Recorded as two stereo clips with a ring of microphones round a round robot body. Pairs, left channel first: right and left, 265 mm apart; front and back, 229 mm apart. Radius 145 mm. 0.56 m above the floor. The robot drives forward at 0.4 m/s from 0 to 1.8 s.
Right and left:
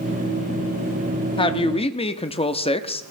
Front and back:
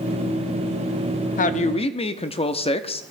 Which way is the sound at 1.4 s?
30° right.